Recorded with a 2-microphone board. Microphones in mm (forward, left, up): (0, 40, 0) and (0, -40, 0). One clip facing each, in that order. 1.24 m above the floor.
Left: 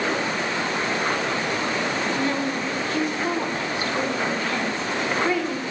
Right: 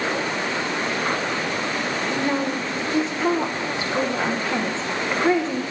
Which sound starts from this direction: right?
A woman speaking, at 2.1 s.